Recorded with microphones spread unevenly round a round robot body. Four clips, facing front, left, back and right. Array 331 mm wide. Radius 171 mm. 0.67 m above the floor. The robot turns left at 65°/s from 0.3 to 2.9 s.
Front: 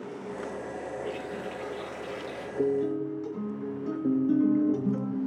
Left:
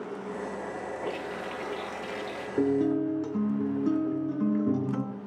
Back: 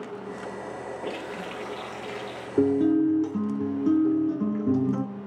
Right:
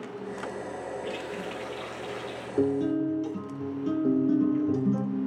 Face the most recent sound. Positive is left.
turn(degrees=-50)